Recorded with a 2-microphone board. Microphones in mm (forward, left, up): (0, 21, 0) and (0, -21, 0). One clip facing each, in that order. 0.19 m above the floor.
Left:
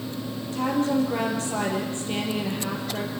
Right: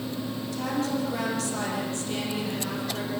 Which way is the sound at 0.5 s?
30° left (ahead or behind).